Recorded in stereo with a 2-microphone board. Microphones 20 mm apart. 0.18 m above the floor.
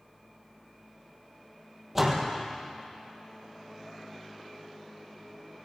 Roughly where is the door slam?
Centre.